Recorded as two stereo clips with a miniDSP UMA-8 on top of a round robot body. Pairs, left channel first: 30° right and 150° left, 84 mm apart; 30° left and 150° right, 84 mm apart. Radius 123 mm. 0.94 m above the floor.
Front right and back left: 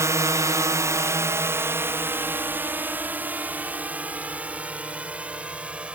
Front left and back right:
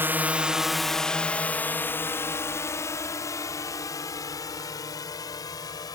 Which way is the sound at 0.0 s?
165° left.